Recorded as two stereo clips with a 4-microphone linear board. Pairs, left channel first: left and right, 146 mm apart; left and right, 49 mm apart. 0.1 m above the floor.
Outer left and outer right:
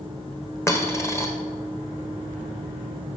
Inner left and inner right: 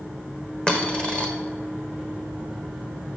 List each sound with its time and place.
0.7 s a dropped coin: 20° left (ahead or behind), 1.2 m